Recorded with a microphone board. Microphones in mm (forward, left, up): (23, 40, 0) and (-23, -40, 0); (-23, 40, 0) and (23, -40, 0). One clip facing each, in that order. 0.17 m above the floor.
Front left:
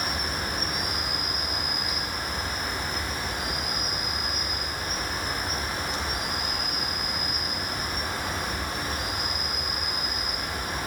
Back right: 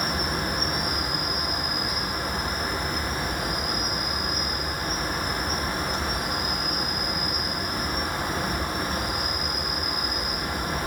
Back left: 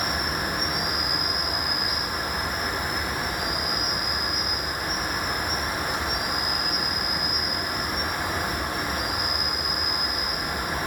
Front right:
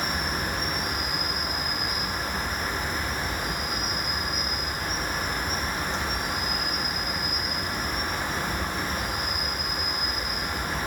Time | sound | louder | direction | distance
0.0 | an insect | back right 3 dB, back left 1 dB | 160° right | 3.5 m